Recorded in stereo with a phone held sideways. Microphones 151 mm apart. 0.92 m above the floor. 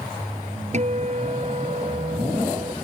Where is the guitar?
50° right (ahead or behind).